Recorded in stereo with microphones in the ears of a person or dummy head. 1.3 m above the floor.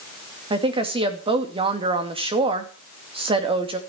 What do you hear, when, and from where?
0.5 s a woman speaking: 25° right (ahead or behind), 2.5 m